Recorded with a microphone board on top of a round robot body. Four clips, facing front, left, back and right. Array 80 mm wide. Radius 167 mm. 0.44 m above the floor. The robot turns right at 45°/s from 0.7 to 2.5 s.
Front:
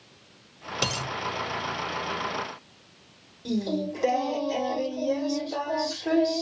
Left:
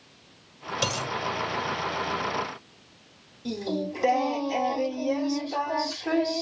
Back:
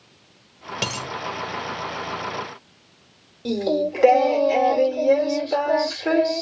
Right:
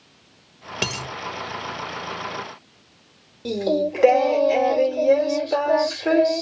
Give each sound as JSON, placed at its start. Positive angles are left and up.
{"t": 0.8, "sound": "a dropped coin", "azimuth_deg": -105, "distance_m": 5.5}
{"t": 3.5, "sound": "singing", "azimuth_deg": -130, "distance_m": 1.6}